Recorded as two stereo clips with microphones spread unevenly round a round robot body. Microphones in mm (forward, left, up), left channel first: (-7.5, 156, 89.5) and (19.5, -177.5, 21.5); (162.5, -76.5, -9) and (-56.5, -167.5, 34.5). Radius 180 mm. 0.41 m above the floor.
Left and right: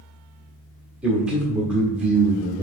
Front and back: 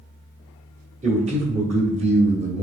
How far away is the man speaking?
About 1.3 m.